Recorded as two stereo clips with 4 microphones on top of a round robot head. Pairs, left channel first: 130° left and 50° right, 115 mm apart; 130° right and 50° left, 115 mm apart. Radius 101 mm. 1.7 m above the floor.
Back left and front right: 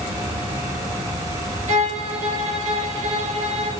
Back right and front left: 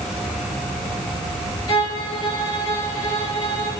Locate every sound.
1.7 s a violin: 80° right, 3 m